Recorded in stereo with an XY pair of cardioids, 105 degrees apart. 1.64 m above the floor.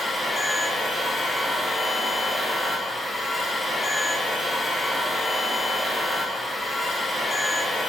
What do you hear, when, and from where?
0.0 s a machine running: 10° left, 0.7 m